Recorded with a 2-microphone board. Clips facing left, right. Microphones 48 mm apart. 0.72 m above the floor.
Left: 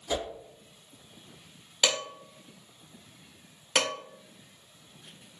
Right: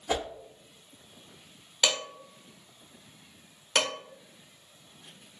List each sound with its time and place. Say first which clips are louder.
0.1 s a whoosh: right 1 dB; 45° right (ahead or behind), 0.8 m
1.8 s dishes clattering: even; 10° left (ahead or behind), 1.1 m